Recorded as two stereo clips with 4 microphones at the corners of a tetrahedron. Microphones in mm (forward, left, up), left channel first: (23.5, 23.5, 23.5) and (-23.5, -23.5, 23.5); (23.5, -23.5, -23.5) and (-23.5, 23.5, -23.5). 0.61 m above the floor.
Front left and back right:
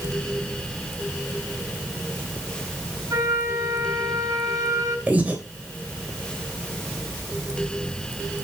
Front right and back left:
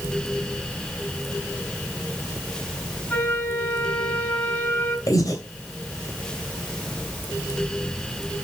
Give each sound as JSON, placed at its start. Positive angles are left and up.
{"t": 3.1, "sound": "a flute", "azimuth_deg": -105, "distance_m": 4.5}
{"t": 5.1, "sound": "breathing", "azimuth_deg": -70, "distance_m": 2.5}